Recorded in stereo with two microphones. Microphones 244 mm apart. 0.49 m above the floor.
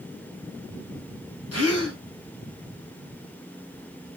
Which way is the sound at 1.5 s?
80° left.